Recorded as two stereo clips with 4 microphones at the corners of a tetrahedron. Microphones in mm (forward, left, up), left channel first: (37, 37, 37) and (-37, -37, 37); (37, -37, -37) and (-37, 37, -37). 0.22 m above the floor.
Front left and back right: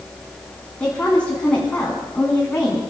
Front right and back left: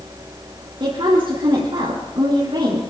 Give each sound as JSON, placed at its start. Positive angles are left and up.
{"t": 0.8, "sound": "a woman speaking", "azimuth_deg": 120, "distance_m": 2.5}